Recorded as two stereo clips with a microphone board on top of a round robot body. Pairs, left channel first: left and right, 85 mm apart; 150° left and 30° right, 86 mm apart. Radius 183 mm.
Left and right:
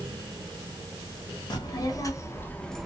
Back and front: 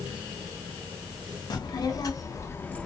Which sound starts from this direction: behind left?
A child speaking, at 1.5 s.